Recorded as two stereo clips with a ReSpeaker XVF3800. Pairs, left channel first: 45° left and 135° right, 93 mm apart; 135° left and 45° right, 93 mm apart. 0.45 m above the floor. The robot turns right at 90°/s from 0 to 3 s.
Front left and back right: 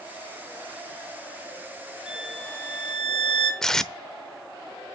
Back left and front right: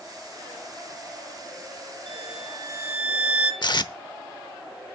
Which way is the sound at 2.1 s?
55° right.